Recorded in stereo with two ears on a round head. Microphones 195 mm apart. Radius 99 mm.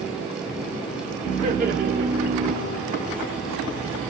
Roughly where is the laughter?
Right.